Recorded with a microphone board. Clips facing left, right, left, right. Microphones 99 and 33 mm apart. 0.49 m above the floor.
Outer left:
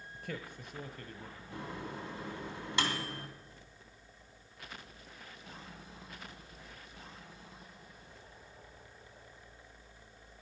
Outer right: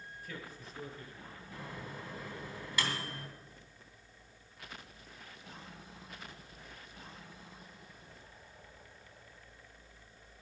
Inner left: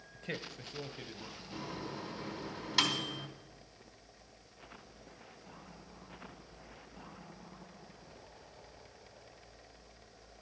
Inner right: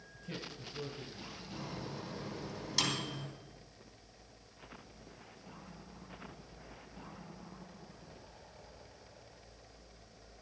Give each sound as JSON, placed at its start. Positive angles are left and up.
{"t": 0.1, "sound": "a man speaking", "side_deg": 65, "distance_m": 1.8}
{"t": 1.5, "sound": "a microwave", "side_deg": 25, "distance_m": 3.0}